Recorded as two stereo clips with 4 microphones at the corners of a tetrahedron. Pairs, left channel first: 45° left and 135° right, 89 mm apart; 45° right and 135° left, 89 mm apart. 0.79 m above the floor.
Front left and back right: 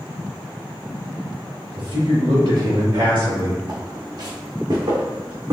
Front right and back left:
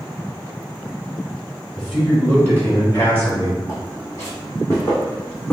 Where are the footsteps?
95° right, 1.9 m; by 5.5 s 110° right, 2.5 m.